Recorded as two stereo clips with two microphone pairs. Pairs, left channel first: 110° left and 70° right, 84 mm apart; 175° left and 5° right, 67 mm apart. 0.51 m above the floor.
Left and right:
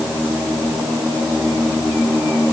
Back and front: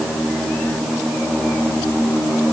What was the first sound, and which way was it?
Only background noise.